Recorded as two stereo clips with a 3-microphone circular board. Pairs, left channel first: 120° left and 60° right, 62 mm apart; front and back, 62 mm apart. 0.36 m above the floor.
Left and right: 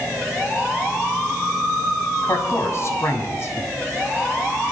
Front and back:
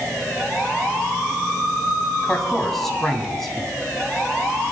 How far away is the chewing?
No chewing in this recording.